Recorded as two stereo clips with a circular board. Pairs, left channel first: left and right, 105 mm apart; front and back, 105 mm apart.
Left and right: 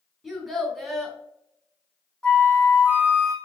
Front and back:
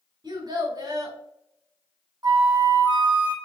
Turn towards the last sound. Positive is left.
turn(degrees=165)